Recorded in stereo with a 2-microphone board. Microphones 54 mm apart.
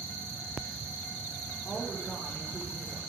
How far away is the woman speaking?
About 4.5 m.